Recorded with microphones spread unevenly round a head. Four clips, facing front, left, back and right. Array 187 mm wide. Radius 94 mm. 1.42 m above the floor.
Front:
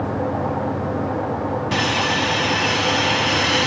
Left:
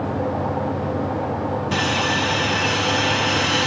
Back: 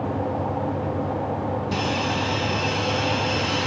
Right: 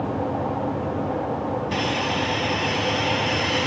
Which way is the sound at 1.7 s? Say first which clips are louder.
Left 3 dB, front 4 dB; 20° left.